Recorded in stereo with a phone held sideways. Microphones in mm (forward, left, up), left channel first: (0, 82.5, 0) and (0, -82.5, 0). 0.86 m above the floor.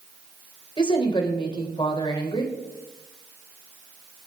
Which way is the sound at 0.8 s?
30° left (ahead or behind).